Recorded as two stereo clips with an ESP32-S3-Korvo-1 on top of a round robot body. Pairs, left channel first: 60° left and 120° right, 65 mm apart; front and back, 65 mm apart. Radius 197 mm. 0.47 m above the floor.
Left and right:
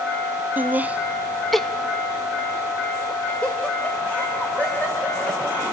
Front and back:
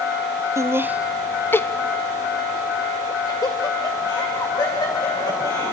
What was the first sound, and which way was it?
Laughter, 170° right.